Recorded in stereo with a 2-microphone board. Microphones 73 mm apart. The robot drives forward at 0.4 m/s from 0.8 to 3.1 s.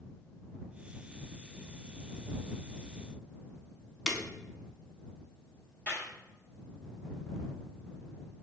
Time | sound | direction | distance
4.1 | breaking glass | centre (ahead or behind) | 0.6 m
5.9 | a clap | 30° left (ahead or behind) | 1.3 m